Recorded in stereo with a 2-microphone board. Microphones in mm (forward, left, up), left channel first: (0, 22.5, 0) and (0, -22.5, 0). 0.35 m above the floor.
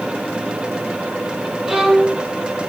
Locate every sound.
1.7 s a violin: 10° right (ahead or behind), 9 m